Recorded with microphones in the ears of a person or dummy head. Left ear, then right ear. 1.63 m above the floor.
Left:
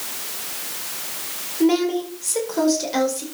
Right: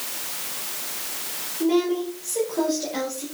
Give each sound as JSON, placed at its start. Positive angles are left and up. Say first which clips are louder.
{"t": 1.6, "sound": "a woman speaking", "louder": "left 3 dB", "side_deg": 65, "distance_m": 4.5}